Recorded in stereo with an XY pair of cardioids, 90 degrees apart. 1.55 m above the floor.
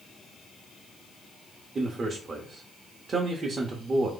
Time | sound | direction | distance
1.8 | a man speaking | 50° right | 0.9 m